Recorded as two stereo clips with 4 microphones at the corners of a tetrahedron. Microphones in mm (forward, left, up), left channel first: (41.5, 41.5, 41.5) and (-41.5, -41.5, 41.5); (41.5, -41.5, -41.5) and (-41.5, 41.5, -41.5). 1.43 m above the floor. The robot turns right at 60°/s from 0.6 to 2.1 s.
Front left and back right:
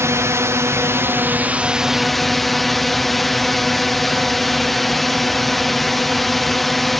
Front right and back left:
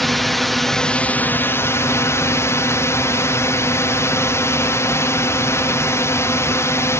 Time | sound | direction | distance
0.0 | a drone | 130° right | ?